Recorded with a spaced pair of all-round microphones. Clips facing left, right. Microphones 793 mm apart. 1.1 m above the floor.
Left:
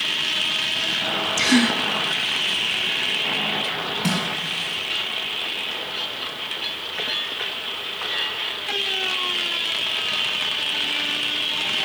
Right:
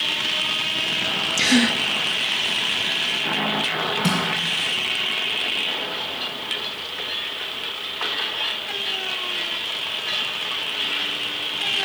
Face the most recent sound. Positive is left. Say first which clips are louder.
# even
turn(degrees=-20)  # may be behind; listen again after turning